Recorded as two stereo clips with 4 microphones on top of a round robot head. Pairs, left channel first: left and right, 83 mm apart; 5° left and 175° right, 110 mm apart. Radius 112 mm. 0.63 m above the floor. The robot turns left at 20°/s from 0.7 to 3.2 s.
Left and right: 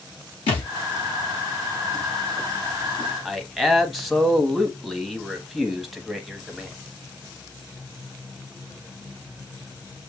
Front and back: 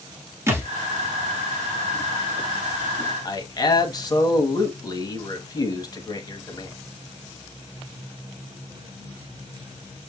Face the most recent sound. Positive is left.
turn(degrees=0)